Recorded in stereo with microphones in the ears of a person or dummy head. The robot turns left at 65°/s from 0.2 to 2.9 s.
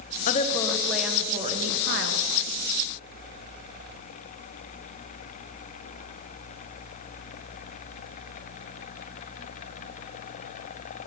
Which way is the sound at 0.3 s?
50° left.